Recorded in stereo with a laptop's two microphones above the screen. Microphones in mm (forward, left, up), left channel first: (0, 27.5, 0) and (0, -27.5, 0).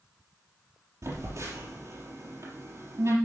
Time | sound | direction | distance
1.0 | a phone buzzing | 70° right (ahead or behind) | 4 m